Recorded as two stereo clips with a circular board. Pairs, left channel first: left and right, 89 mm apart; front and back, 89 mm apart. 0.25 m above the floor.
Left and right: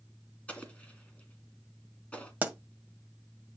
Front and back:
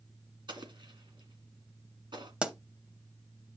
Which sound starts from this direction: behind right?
A pop, at 2.4 s.